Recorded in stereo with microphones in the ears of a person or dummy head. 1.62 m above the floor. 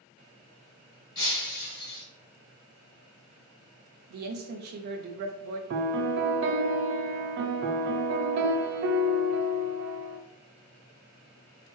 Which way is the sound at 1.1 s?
25° left (ahead or behind).